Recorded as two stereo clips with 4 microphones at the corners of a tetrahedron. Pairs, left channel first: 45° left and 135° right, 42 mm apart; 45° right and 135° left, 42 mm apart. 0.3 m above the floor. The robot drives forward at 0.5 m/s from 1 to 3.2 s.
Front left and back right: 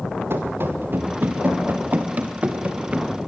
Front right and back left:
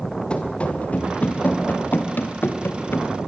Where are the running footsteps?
110° right, 3 m; by 3.1 s 70° right, 1.9 m.